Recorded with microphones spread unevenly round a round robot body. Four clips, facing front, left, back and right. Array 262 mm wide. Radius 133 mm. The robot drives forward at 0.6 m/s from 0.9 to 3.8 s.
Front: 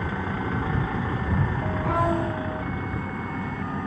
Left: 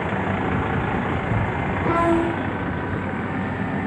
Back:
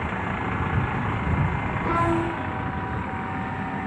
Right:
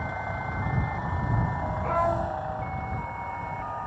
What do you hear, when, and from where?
0.0 s a vehicle: 80° left; by 3.9 s 85° left
1.8 s a violin: 95° left